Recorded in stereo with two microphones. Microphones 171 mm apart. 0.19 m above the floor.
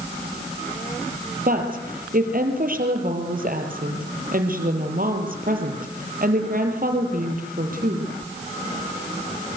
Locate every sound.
1.5 s a woman speaking: 55° right (ahead or behind), 5 m